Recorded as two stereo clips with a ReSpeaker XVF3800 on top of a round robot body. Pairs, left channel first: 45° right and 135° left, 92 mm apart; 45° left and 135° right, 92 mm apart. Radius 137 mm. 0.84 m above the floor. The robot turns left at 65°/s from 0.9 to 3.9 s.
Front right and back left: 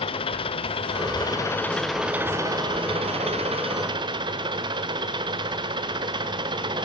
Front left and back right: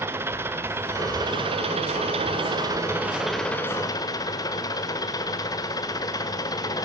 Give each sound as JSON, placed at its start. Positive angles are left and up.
{"t": 0.0, "sound": "an engine running", "azimuth_deg": -70, "distance_m": 1.5}